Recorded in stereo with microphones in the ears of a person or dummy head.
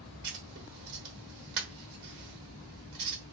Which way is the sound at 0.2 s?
20° right (ahead or behind).